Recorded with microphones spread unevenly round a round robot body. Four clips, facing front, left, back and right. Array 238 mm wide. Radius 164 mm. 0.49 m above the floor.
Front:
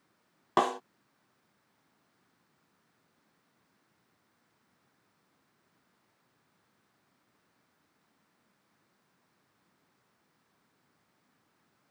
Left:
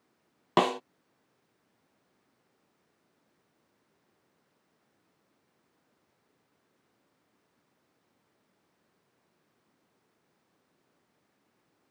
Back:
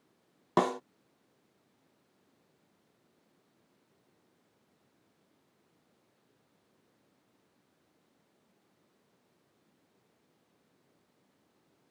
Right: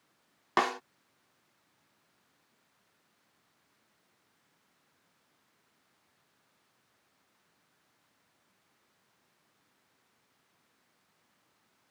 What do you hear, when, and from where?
0.6 s a snare drum: 125° left